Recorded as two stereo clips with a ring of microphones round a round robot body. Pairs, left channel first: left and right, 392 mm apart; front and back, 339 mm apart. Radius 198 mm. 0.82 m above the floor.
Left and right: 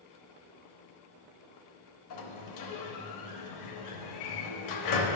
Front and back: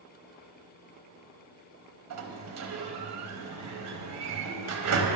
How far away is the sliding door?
About 0.8 m.